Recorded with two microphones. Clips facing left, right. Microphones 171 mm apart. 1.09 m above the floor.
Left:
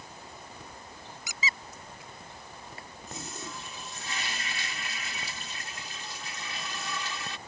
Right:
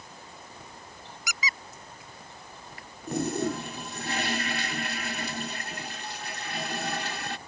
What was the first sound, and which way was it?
A squeak, 30° left (ahead or behind).